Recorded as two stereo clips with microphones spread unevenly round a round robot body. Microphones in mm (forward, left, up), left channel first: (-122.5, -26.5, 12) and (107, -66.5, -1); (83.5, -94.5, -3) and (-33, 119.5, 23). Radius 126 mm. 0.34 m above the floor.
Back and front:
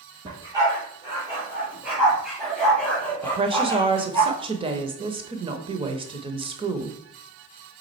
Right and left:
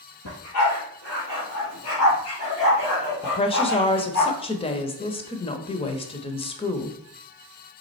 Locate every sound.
0.2 s a dog barking: 80° right, 4 m; by 4.2 s 115° right, 3.5 m
3.2 s a woman speaking: 45° right, 0.9 m